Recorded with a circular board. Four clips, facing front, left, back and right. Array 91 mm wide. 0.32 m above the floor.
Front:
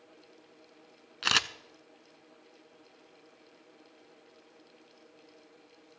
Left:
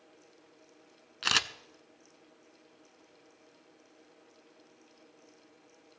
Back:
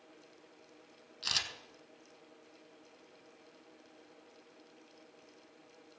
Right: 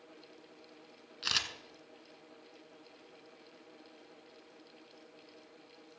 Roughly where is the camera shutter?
Ahead left.